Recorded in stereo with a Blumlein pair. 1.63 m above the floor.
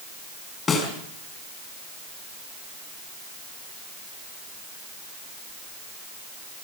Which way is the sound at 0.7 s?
20° left.